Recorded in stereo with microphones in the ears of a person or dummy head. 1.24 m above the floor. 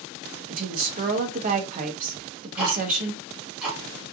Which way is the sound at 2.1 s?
10° right (ahead or behind).